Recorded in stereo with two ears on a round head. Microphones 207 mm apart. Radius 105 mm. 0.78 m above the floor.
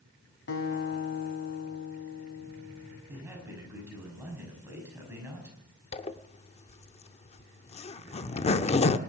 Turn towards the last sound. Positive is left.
turn(degrees=25)  # may be behind; listen again after turning